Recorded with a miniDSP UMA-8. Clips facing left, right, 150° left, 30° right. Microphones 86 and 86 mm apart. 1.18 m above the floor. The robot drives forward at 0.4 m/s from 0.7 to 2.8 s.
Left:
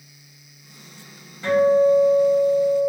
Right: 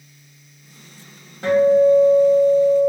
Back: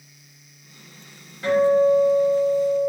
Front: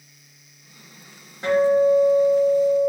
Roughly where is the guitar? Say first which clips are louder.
Right 2 dB, even; right.